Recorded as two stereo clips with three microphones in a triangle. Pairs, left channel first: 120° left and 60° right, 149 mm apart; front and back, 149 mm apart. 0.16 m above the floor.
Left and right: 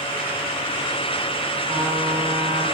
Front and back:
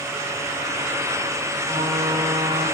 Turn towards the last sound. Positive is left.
turn(degrees=-110)